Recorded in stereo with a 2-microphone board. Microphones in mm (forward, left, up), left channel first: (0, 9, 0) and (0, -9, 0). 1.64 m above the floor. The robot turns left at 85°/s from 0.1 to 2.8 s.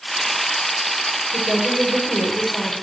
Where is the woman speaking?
90° right, 8 m; by 2.7 s 150° left, 8 m.